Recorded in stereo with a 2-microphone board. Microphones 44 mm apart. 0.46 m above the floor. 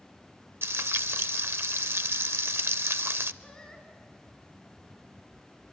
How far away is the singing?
About 4 m.